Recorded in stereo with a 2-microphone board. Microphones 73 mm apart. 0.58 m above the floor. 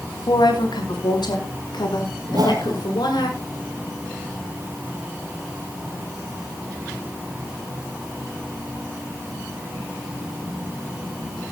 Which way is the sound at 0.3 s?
80° left.